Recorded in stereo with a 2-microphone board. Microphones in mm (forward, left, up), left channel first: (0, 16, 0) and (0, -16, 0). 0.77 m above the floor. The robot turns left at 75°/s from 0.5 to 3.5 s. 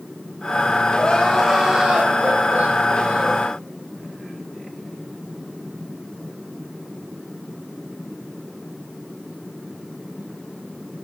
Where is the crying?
45° left, 4.5 m; by 3.5 s 145° right, 4.5 m.